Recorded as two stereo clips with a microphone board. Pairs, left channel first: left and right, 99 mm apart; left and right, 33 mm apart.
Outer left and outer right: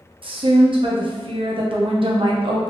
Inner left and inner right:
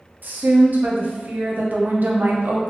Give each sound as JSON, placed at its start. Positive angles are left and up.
{"t": 0.2, "sound": "a woman speaking", "side_deg": -60, "distance_m": 0.6}